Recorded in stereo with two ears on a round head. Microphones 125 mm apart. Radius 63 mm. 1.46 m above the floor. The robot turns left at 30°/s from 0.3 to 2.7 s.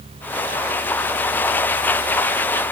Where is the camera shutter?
I don't hear a camera shutter.